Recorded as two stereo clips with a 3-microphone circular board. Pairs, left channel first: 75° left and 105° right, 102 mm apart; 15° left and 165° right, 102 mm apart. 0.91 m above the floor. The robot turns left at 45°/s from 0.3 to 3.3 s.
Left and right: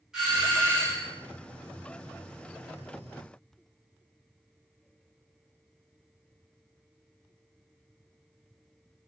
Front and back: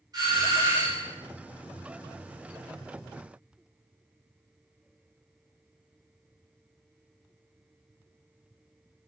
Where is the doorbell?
170° left, 0.9 m; by 1.1 s 135° left, 0.9 m.